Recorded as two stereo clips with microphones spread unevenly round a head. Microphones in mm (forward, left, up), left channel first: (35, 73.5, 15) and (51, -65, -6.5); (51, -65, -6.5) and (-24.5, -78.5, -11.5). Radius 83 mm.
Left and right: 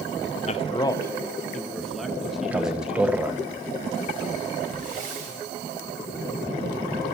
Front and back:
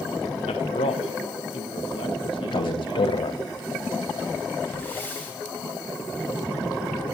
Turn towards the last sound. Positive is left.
turn(degrees=-60)